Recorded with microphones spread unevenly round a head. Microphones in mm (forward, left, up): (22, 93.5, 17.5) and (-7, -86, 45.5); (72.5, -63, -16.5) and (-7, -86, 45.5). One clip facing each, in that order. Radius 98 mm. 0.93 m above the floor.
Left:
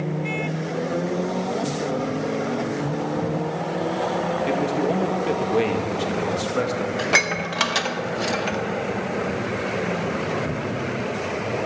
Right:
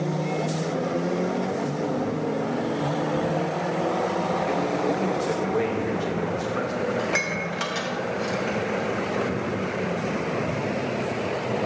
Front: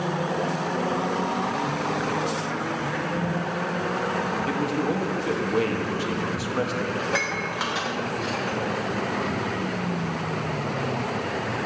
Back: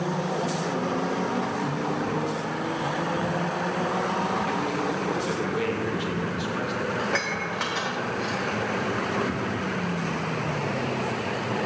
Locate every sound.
4.5 s a man speaking: 35° left, 0.9 m
7.0 s dishes clattering: 95° left, 0.7 m